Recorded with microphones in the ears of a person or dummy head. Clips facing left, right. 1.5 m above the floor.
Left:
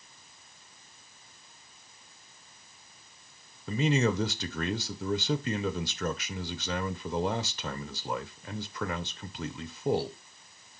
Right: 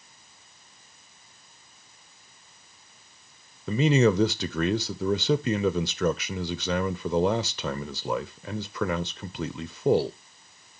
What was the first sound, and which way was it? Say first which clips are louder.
A man speaking: right 6 dB; 55° right (ahead or behind).